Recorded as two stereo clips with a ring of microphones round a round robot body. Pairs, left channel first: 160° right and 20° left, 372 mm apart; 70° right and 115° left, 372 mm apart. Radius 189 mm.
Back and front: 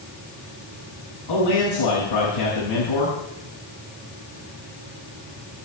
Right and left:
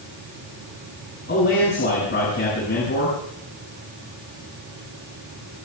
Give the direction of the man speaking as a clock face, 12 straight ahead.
4 o'clock.